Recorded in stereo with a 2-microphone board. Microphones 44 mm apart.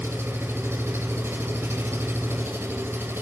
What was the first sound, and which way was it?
An engine running, 65° right (ahead or behind).